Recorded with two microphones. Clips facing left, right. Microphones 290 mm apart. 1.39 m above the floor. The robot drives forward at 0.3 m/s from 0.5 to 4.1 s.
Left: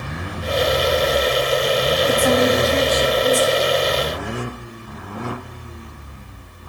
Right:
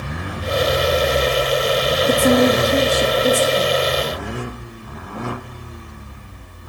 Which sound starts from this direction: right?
A woman speaking, at 2.1 s.